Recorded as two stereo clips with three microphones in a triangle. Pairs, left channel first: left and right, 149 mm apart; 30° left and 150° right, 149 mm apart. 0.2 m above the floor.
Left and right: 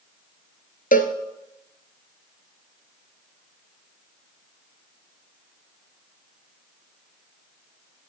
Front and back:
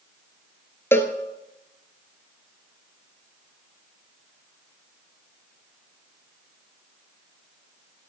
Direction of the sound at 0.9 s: 105° left.